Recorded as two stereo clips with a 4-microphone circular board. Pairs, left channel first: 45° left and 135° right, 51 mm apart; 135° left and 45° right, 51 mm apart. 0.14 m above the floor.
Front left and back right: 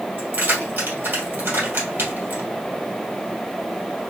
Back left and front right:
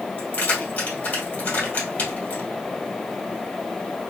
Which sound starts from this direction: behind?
Keys jangling, at 0.2 s.